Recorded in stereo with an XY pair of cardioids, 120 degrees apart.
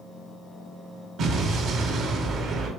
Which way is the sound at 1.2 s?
65° right.